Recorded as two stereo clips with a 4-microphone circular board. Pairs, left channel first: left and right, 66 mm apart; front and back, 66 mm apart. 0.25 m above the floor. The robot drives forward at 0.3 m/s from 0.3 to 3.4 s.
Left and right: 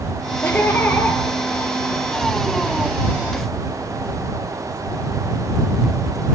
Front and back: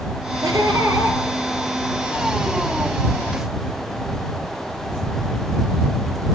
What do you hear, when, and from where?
0.4 s laughter: 155° left, 4.5 m